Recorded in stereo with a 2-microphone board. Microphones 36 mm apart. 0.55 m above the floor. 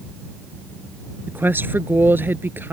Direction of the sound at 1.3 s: 75° right (ahead or behind).